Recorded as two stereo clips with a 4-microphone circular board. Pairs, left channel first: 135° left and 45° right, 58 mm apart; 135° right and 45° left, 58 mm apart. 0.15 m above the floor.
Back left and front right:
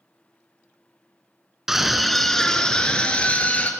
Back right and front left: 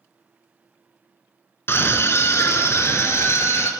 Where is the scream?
125° right, 2.5 m; by 3.7 s 165° right, 3.5 m.